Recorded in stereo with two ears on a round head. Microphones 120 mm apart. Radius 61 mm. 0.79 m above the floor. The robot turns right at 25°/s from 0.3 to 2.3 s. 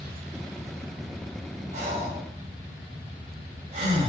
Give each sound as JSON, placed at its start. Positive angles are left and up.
{"t": 1.7, "sound": "breathing", "side_deg": -50, "distance_m": 1.2}